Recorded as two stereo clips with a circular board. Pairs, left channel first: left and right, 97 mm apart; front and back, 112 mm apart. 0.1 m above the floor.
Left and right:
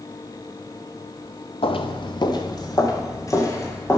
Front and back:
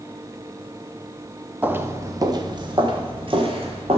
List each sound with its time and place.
1.6 s footsteps: 105° left, 0.8 m; by 4.0 s 150° left, 2.5 m